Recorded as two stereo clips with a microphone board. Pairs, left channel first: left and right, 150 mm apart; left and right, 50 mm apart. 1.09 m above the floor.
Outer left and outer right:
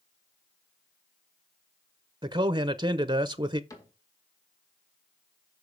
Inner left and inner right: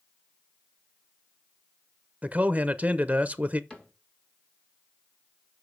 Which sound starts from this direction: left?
A cupboard door, at 3.7 s.